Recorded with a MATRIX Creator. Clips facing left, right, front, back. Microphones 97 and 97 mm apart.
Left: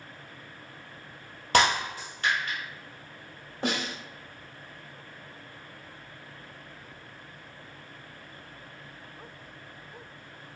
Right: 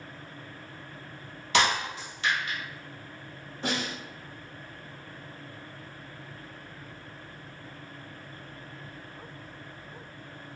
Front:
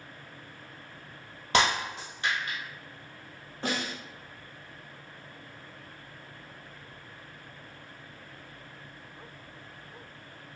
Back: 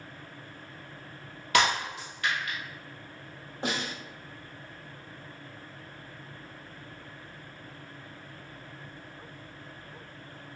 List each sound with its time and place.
1.5 s breaking glass: 60° left, 1.7 m
3.6 s a snare drum: 110° left, 1.3 m